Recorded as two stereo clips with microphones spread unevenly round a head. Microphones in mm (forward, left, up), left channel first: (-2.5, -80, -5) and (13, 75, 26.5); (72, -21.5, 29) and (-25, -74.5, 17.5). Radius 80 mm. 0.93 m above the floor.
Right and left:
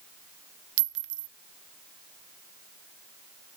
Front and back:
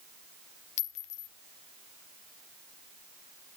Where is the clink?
75° left, 0.8 m.